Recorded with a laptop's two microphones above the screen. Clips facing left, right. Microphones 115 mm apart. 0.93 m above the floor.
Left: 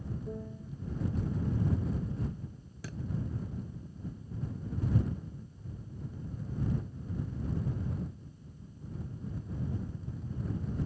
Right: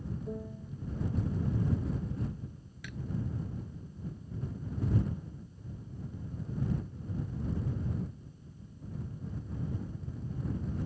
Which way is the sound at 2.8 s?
35° left (ahead or behind).